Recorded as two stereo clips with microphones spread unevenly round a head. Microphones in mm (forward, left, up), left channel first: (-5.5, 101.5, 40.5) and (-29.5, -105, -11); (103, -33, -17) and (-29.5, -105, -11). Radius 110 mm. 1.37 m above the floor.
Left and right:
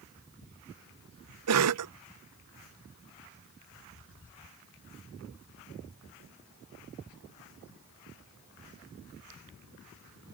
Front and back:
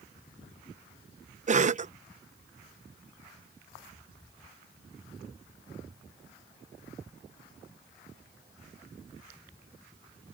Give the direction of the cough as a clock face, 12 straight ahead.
4 o'clock.